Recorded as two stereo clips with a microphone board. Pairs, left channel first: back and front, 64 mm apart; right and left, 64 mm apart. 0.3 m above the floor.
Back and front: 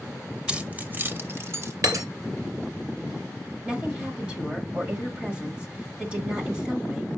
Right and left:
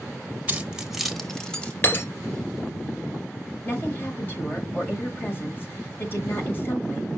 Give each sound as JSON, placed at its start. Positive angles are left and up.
{"t": 0.5, "sound": "keys jangling", "azimuth_deg": 55, "distance_m": 0.6}
{"t": 1.8, "sound": "breaking glass", "azimuth_deg": -35, "distance_m": 1.3}
{"t": 3.6, "sound": "a woman speaking", "azimuth_deg": -60, "distance_m": 1.7}